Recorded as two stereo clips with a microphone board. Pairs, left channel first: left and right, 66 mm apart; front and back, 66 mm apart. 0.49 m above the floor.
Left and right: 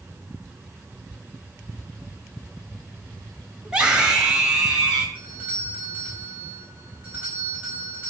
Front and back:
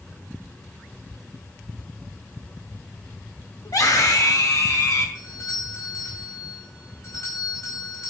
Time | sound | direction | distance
3.6 | a scream | 15° right | 2 m
5.2 | a doorbell | 25° right | 4.5 m